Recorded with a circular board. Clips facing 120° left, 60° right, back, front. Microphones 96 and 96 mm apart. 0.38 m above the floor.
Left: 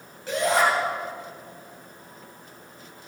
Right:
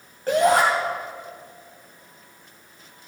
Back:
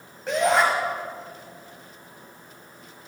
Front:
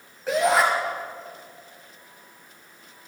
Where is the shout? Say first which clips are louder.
Right 5 dB, even; 90° right, 2.0 m.